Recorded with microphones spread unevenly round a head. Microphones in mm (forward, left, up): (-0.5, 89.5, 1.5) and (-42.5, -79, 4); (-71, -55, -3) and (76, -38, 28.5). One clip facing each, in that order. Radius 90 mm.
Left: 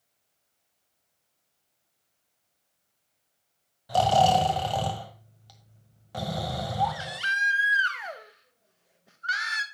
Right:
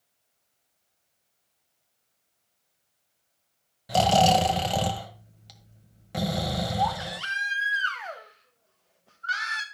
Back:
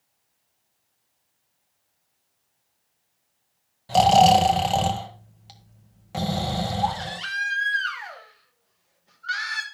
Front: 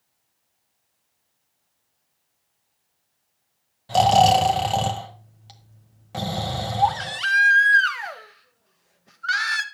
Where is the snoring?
65° right, 1.5 m.